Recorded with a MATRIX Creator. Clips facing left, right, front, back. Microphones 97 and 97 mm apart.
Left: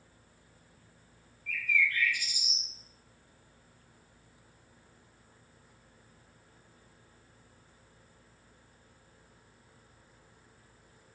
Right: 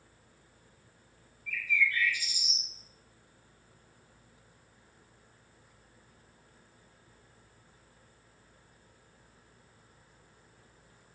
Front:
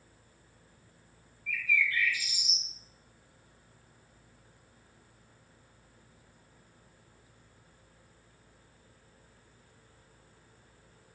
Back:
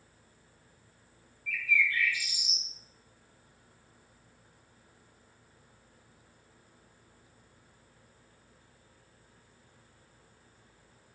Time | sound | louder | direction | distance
1.5 | a bird | even, back 1 dB | 75° left | 1.5 m